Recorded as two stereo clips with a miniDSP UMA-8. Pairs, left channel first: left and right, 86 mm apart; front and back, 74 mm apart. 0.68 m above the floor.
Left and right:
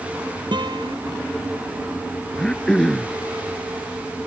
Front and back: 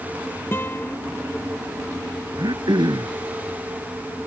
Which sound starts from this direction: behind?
Throat clearing, at 2.4 s.